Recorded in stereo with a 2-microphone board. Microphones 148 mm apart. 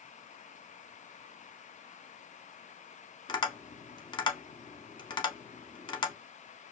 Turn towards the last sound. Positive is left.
turn(degrees=30)  # may be behind; listen again after turning